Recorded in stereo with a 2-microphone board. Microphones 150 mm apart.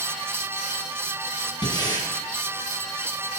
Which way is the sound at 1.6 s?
30° left (ahead or behind).